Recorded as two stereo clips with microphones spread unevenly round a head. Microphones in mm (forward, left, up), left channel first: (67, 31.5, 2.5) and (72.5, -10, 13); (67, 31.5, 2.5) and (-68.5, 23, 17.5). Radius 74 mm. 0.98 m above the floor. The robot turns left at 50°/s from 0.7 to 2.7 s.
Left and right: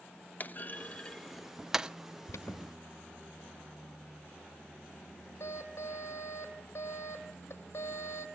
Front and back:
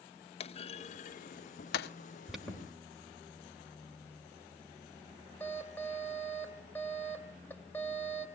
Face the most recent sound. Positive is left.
turn(degrees=80)